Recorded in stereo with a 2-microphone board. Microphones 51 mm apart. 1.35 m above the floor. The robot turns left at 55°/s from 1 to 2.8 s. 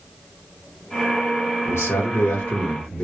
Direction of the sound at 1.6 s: 85° left.